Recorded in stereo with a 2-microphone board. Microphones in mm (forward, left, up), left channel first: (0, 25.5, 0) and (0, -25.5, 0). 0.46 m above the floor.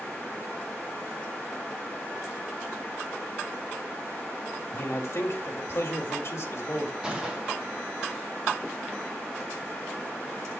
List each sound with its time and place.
4.7 s a man speaking: 60° left (ahead or behind), 2 m
7.0 s a gunshot: 15° right (ahead or behind), 3 m